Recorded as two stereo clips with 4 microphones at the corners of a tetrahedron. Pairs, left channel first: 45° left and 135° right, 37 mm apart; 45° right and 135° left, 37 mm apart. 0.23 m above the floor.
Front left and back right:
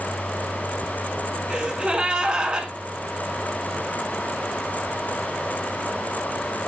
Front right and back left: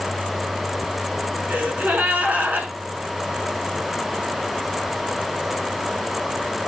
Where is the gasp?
165° left, 1.0 m.